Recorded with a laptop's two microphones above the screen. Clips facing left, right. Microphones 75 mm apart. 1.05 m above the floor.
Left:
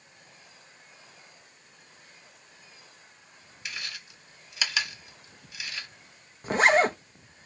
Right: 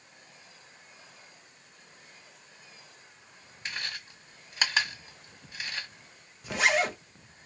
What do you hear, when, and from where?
3.6 s chewing: 45° right (ahead or behind), 1.4 m
6.4 s a zipper: 40° left (ahead or behind), 0.5 m